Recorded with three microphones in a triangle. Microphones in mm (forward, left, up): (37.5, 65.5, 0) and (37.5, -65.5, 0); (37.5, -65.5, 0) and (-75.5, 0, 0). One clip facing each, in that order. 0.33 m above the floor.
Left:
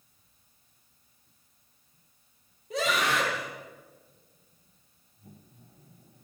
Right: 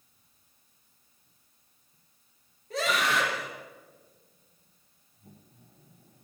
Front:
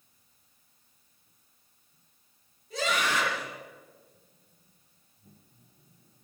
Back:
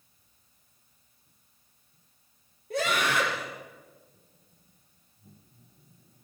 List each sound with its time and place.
2.7 s a scream: 165° left, 9.5 m